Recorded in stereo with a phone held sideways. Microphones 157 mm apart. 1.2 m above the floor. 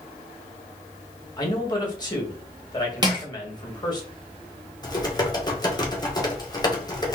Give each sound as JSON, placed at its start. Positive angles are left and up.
{"t": 1.4, "sound": "a man speaking", "side_deg": 25, "distance_m": 1.8}
{"t": 3.0, "sound": "crushing", "side_deg": -25, "distance_m": 1.8}
{"t": 4.8, "sound": "typing on a keyboard", "side_deg": 25, "distance_m": 1.4}